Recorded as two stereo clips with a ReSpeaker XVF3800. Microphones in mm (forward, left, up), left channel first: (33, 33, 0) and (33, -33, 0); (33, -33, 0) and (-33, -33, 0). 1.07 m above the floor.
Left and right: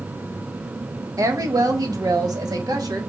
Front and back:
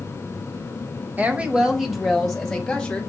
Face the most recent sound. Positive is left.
turn(degrees=-80)